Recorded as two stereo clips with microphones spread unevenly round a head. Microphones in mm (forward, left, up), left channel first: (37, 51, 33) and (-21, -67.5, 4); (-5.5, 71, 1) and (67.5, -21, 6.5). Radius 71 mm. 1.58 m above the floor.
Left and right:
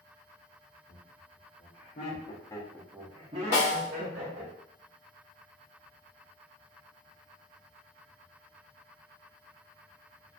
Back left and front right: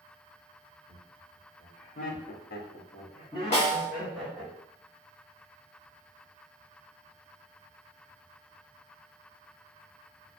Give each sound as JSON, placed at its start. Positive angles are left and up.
{"t": 0.9, "sound": "laughter", "azimuth_deg": 90, "distance_m": 1.3}
{"t": 3.5, "sound": "a snare drum", "azimuth_deg": 100, "distance_m": 1.0}